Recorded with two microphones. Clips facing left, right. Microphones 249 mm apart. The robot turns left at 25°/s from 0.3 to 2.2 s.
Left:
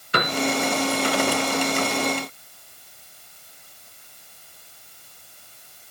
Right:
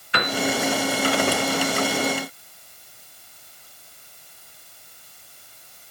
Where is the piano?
45° left (ahead or behind), 1.9 m.